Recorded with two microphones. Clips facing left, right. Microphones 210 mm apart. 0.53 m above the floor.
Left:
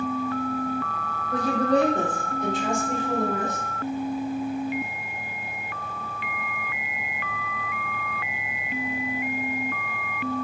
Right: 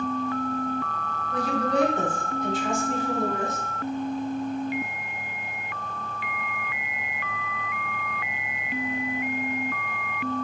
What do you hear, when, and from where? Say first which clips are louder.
1.3 s a woman speaking: left 3 dB; 45° left (ahead or behind), 1.7 m; by 3.6 s 70° left (ahead or behind), 3 m